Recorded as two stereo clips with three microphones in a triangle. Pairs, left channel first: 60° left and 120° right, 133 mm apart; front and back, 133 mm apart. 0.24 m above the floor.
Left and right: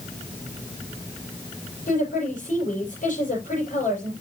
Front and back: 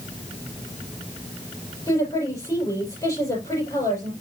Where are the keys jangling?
No keys jangling in this recording.